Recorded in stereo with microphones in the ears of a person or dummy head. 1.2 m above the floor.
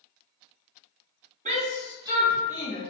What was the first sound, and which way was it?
A shout, 35° right (ahead or behind).